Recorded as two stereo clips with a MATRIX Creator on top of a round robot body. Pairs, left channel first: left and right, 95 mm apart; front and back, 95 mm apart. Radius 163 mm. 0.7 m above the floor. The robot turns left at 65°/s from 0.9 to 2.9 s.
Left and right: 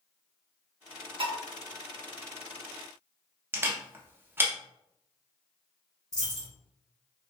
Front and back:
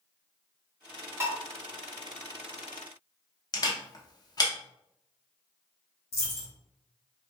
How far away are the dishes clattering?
About 0.9 m.